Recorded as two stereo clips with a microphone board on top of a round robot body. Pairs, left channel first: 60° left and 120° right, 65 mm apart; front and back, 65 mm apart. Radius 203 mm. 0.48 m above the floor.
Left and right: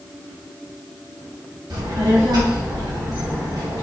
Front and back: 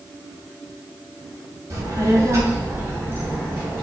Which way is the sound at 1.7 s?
140° right.